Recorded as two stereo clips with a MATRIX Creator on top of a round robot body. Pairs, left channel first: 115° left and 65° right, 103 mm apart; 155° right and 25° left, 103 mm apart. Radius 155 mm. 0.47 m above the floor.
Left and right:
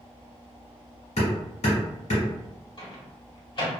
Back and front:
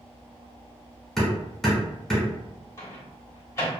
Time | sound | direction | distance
1.2 | hammering | 115° left | 1.4 m
2.8 | a microwave | 145° left | 1.5 m